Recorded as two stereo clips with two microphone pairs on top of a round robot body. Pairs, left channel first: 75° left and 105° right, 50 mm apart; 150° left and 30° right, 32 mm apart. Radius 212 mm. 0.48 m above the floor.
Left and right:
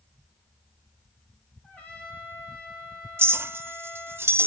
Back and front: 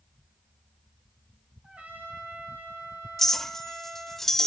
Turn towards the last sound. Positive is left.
turn(degrees=-130)